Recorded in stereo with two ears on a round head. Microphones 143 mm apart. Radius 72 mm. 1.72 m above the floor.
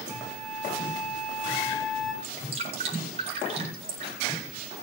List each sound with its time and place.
0.1 s a flute: 5° left (ahead or behind), 4 m
2.2 s dripping: 40° right (ahead or behind), 8.5 m